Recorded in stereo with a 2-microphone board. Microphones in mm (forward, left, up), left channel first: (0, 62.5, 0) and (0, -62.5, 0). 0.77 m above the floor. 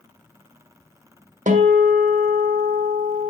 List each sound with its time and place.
1.5 s a guitar: 80° right, 1.5 m